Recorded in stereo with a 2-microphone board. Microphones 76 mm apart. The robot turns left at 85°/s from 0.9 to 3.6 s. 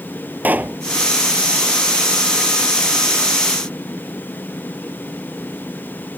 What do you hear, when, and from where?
0.4 s a pop: 25° right (ahead or behind)